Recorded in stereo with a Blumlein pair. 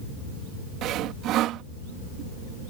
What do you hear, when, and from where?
0.8 s sawing: 35° right